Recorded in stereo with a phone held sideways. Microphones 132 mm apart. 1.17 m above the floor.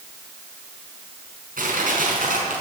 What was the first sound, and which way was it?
Crushing, 80° right.